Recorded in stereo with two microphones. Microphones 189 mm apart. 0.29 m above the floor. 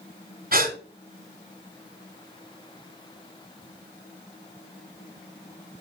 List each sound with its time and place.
0.5 s a gasp: 50° right (ahead or behind), 1.3 m